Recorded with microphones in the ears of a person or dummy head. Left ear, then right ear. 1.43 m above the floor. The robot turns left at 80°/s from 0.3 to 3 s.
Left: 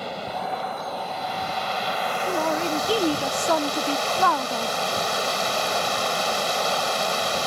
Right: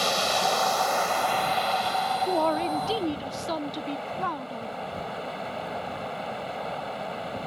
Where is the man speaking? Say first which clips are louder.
Left 1 dB; 155° right; by 4.8 s 145° left.